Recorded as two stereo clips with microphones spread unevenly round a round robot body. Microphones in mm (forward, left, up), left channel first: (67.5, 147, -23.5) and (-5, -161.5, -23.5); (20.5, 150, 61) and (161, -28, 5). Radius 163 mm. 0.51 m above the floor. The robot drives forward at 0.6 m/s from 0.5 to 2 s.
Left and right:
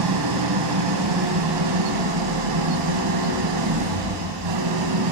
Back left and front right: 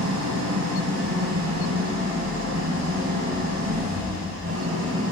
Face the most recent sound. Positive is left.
turn(degrees=-110)